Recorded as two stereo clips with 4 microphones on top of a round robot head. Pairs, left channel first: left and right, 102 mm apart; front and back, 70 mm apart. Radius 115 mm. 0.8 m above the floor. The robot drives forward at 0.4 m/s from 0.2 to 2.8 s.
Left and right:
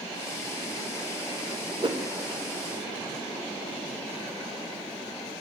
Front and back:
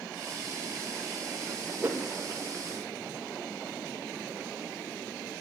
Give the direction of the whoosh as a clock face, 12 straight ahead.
4 o'clock.